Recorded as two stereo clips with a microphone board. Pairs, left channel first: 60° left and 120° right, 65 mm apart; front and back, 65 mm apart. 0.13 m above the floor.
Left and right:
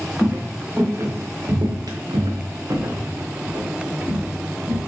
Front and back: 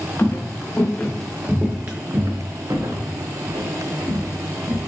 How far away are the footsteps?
About 1.2 m.